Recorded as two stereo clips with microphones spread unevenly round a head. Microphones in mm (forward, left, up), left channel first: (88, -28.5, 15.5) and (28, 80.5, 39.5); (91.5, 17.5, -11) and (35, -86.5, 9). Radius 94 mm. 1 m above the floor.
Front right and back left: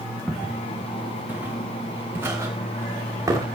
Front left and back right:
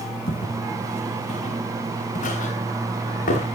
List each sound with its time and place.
0.3 s footsteps: 35° left, 7 m; by 3.5 s 55° left, 8 m